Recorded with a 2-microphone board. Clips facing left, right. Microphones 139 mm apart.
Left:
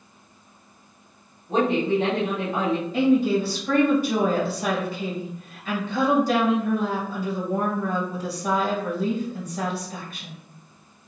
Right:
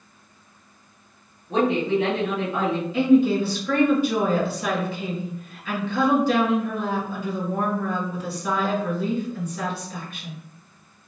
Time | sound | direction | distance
1.5 | a woman speaking | 50° left (ahead or behind) | 1.6 m
2.9 | a woman speaking | 40° left (ahead or behind) | 1.8 m